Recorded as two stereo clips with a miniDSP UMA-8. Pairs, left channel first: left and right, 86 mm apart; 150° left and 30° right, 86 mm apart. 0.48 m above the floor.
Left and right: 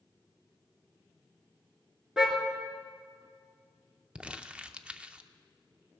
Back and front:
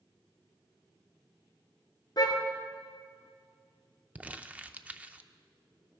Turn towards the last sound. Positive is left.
turn(degrees=-45)